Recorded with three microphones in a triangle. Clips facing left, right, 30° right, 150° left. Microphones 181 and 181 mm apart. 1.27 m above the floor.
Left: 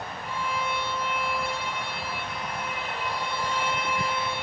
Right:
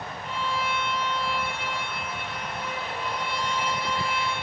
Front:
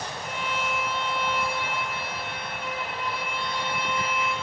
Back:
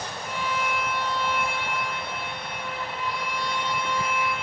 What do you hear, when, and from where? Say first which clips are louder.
0.2 s a violin: right 1 dB, back 3 dB; 25° right, 3 m